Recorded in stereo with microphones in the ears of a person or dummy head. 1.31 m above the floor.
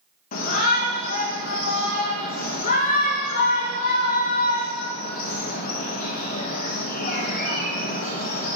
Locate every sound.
0.3 s a shout: 40° left (ahead or behind), 1.6 m